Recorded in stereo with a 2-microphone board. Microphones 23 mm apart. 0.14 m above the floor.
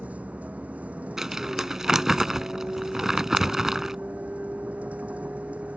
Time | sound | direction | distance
0.0 | a vehicle | 80° right | ?
1.2 | crumpling | 20° right (ahead or behind) | ?